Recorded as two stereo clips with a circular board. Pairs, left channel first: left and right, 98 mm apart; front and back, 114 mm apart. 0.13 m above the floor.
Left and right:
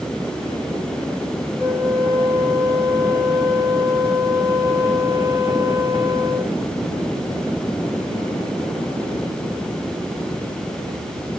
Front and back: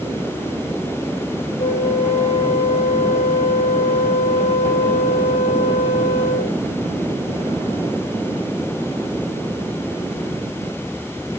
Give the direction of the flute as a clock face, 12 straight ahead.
10 o'clock.